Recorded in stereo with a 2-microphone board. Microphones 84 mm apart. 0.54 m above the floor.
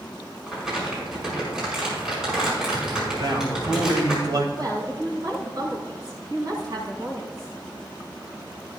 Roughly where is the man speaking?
Right.